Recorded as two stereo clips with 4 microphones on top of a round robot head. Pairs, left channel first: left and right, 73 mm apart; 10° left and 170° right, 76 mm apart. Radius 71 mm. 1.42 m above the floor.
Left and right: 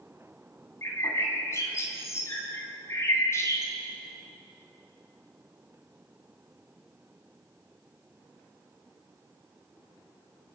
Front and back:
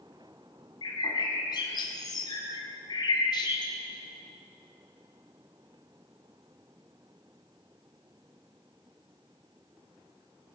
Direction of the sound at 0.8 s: 40° left.